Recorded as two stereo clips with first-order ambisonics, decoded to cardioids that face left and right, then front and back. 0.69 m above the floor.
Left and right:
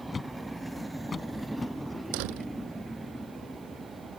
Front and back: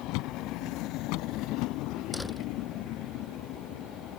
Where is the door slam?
90° right.